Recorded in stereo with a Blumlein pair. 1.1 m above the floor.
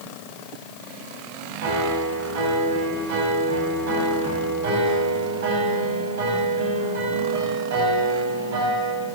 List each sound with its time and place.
1.6 s a piano: 55° right, 3.5 m